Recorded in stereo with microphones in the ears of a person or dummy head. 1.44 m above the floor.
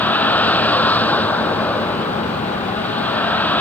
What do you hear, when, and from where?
0.0 s a vehicle: 5° left (ahead or behind)